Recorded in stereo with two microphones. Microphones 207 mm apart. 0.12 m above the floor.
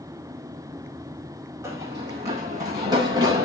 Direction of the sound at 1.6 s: 15° right (ahead or behind).